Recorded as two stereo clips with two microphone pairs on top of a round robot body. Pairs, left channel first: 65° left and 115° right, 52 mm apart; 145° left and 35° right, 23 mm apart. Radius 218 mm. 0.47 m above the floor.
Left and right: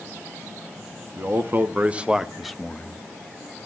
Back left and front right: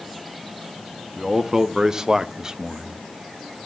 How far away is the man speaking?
About 1.5 m.